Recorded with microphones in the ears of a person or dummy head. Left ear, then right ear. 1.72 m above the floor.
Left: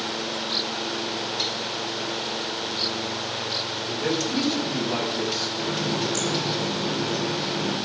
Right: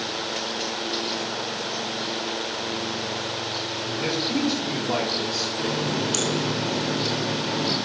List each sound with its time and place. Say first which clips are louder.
3.9 s a man speaking: right 1 dB; 55° right (ahead or behind), 9 m; by 5.5 s 60° right (ahead or behind), 8.5 m
5.6 s a running tap: even; 75° right (ahead or behind), 4 m